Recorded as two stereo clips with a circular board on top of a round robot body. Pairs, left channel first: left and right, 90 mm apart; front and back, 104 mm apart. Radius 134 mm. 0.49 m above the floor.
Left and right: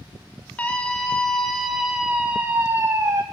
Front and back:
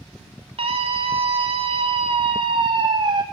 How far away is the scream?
About 1.9 m.